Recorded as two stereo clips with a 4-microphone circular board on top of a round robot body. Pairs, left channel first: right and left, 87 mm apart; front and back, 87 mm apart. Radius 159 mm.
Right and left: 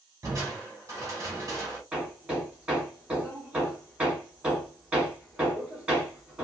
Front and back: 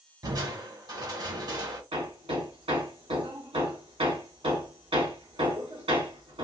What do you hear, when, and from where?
0.2 s crushing: 145° left, 2 m
1.9 s hammering: 165° left, 2.5 m